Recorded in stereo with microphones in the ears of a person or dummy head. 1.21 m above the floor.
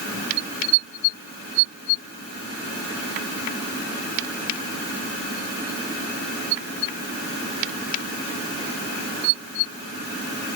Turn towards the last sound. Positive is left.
No sound to turn to.